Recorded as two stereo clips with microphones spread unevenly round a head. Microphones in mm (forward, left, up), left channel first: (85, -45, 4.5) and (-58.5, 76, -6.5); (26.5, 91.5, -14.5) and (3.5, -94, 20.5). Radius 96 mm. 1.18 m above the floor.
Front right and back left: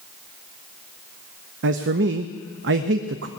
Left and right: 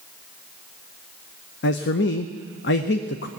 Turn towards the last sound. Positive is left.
turn(degrees=115)